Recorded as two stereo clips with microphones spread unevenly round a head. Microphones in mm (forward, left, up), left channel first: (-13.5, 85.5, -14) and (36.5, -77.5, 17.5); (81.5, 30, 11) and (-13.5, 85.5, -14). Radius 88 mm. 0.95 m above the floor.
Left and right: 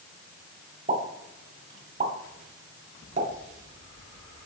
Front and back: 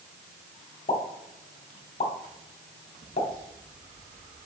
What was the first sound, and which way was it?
A pop, 35° right.